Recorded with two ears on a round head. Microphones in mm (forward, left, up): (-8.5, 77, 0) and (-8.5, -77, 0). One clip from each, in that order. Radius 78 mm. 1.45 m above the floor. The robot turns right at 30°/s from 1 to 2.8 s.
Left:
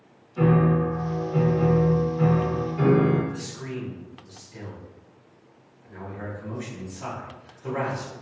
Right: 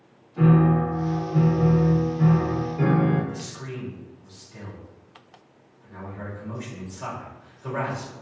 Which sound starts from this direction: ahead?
A piano, at 0.4 s.